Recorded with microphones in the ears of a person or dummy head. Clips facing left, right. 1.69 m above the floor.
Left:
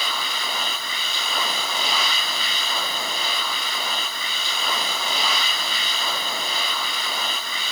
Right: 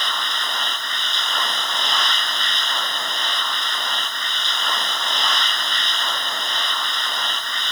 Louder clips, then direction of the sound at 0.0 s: Even; 5° left (ahead or behind).